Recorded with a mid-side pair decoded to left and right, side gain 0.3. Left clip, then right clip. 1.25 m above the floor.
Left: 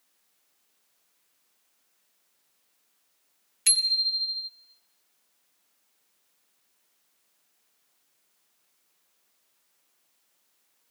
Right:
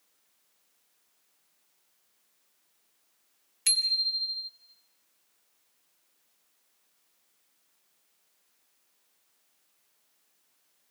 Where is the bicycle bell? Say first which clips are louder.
Left 2 dB; 20° left, 3 m.